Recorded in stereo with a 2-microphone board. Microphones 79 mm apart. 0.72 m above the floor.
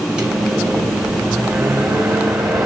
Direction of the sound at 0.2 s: 15° right (ahead or behind).